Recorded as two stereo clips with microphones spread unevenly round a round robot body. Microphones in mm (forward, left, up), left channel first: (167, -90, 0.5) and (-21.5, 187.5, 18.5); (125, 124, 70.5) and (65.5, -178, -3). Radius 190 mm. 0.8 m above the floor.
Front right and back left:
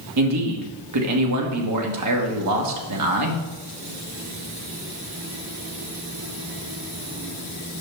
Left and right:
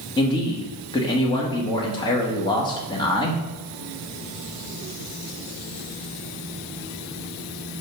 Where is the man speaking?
165° left, 1.2 m.